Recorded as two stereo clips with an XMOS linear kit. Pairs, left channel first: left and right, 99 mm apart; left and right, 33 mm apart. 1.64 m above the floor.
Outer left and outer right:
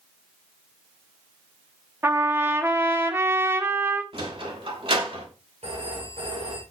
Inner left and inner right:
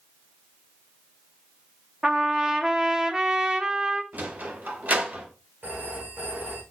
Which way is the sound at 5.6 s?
85° right.